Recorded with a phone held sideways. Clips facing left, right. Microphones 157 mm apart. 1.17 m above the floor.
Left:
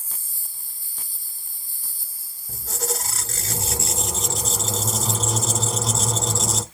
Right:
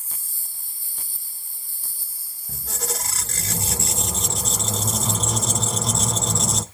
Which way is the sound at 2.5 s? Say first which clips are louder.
Left 2 dB; centre (ahead or behind).